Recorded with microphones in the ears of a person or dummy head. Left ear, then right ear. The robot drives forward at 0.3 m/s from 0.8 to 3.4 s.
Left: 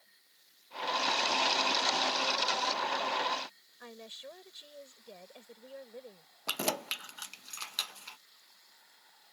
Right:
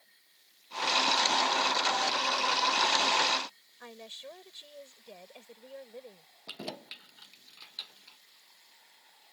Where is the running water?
10° right (ahead or behind).